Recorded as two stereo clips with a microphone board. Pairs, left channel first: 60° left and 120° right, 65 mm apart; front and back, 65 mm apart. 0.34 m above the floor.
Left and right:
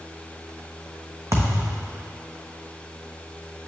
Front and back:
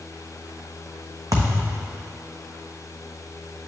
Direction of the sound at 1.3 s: 155° right.